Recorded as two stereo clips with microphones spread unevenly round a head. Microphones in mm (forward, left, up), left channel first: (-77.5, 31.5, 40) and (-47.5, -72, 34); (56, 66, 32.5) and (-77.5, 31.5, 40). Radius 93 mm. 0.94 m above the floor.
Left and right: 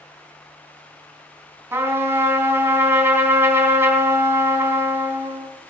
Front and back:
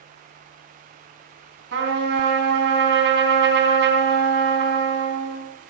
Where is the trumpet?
145° right, 4 m.